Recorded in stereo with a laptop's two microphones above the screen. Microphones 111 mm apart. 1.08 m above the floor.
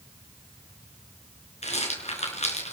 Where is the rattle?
80° left, 4.5 m.